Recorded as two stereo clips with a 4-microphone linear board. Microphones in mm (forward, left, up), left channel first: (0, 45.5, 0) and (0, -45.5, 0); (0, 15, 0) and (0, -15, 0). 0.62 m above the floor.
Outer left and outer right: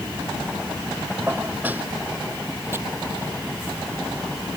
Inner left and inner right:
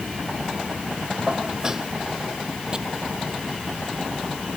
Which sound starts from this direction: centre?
Dishes clattering, at 1.3 s.